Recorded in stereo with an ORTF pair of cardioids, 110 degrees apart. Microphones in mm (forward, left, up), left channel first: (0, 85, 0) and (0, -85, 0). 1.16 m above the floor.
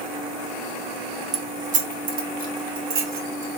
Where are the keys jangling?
40° right, 0.5 m; by 3.5 s 70° right, 1.6 m.